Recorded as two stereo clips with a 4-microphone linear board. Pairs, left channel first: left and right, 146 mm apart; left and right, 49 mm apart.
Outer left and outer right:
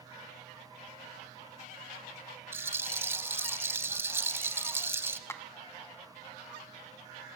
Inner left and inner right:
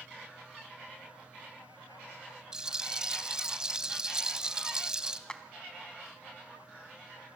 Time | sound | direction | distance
2.5 | a rattle | 15° right (ahead or behind) | 0.8 m
5.3 | a clap | 15° left (ahead or behind) | 1.3 m